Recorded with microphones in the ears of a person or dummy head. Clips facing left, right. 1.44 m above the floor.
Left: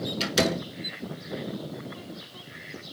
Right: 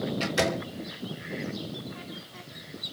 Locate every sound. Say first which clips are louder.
0.2 s a door slam: left 5 dB; 40° left (ahead or behind), 3 m